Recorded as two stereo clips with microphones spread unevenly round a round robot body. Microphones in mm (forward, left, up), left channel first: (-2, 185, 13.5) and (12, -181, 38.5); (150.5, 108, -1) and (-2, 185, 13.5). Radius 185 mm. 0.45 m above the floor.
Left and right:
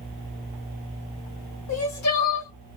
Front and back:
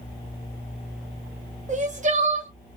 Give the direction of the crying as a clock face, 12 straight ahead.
8 o'clock.